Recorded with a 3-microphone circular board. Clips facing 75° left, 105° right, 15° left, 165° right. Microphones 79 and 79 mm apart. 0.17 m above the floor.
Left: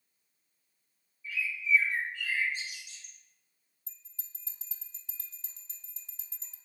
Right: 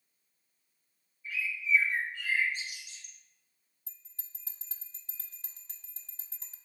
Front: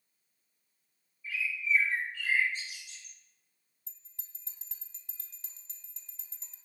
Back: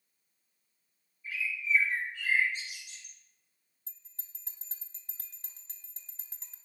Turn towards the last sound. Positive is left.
turn(degrees=-130)